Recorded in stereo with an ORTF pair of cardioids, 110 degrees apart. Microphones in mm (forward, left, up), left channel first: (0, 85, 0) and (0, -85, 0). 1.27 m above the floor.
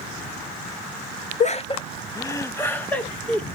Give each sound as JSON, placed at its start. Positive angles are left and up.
{"t": 1.4, "sound": "laughter", "azimuth_deg": 45, "distance_m": 0.5}